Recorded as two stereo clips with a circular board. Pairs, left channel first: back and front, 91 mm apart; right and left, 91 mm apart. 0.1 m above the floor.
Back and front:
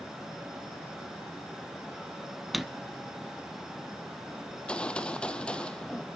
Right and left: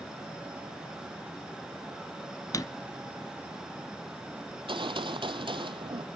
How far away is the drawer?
About 0.6 m.